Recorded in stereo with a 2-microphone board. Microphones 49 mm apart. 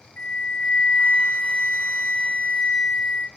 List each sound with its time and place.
0.2 s a flute: 35° left (ahead or behind), 0.9 m